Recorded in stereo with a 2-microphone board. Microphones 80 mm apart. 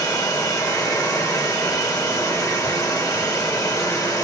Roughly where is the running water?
Left.